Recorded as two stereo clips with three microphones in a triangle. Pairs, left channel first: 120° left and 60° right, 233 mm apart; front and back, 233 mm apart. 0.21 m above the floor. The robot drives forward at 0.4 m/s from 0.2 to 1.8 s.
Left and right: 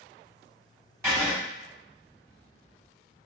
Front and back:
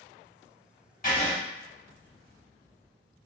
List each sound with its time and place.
1.0 s writing: 10° left, 1.0 m; by 1.4 s 15° left, 0.9 m